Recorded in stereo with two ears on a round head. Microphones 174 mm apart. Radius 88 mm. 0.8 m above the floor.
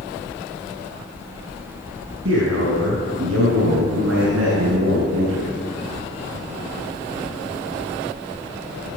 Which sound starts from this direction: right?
A man speaking, at 2.2 s.